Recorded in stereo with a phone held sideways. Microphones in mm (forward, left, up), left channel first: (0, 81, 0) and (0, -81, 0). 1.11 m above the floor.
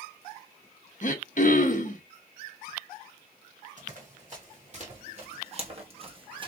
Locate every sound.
1.0 s throat clearing: 55° left (ahead or behind), 0.7 m
3.8 s running footsteps: 50° right (ahead or behind), 2 m; by 6.5 s 30° right (ahead or behind), 1.2 m